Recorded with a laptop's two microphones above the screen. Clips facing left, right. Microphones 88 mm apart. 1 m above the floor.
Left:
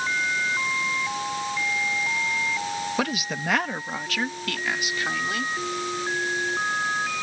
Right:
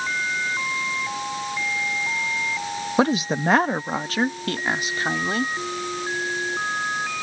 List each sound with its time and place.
3.0 s a woman speaking: 30° right (ahead or behind); by 5.5 s 35° right (ahead or behind)